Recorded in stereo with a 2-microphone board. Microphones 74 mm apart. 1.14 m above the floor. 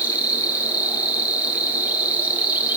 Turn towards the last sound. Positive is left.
turn(degrees=-20)  # may be behind; listen again after turning